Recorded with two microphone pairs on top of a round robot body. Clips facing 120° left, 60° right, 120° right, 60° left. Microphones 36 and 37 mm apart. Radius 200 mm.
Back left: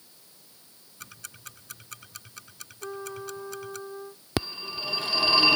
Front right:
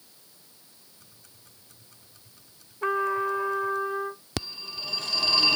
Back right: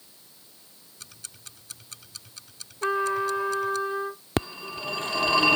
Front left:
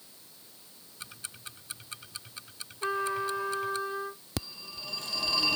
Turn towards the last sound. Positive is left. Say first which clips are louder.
# back left 7 dB, back right 12 dB
turn(degrees=-170)